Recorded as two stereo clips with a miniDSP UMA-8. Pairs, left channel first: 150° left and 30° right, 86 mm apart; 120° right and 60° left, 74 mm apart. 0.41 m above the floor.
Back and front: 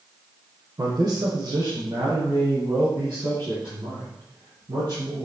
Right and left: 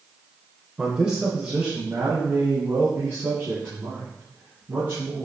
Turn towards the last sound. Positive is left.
turn(degrees=-5)